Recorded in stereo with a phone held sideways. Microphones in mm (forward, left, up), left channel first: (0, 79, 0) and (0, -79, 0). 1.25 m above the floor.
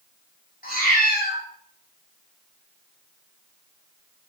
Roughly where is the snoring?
I don't hear snoring.